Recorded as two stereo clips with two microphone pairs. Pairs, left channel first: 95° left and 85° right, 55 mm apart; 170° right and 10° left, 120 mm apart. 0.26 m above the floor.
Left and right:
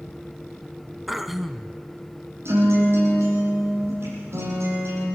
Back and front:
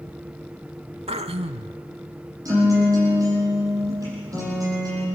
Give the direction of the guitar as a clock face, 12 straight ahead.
2 o'clock.